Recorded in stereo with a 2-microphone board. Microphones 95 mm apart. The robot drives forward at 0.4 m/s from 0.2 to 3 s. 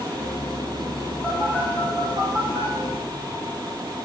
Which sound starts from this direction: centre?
A phone buzzing, at 1.2 s.